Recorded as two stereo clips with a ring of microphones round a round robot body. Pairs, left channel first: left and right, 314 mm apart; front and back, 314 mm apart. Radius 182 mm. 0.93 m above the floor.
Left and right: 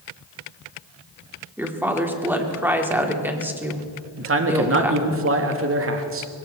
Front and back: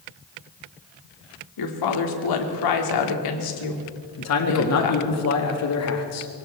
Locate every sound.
1.6 s a woman speaking: 5° right, 2.5 m
4.2 s a man speaking: 40° right, 1.7 m